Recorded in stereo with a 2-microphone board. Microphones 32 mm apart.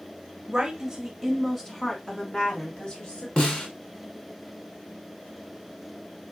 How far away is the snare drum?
About 1.5 m.